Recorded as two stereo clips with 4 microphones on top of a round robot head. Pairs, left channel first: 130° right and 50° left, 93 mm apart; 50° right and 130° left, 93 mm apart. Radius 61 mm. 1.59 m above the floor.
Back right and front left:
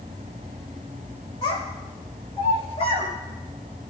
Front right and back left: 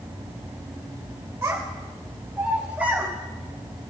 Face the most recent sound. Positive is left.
turn(degrees=-155)